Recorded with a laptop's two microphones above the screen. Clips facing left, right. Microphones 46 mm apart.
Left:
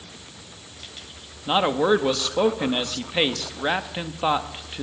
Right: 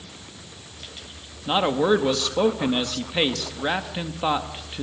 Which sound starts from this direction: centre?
A man speaking, at 1.5 s.